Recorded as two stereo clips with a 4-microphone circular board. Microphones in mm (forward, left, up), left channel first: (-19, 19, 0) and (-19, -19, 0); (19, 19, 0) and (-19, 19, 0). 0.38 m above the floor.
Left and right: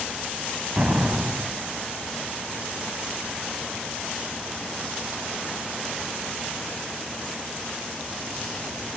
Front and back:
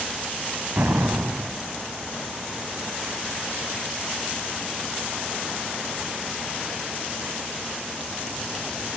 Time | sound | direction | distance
0.8 | an explosion | 150° right | 0.7 m